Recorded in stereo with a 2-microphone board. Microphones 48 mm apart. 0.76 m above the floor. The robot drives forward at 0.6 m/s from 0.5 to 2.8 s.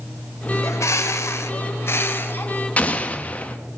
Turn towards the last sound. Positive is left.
turn(degrees=30)  # may be behind; listen again after turning